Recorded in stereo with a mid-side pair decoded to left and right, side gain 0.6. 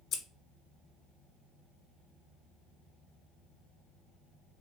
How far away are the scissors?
About 0.8 m.